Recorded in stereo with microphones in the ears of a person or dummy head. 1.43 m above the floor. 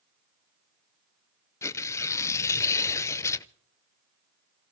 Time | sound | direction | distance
1.6 | tearing paper | 15° left (ahead or behind) | 0.6 m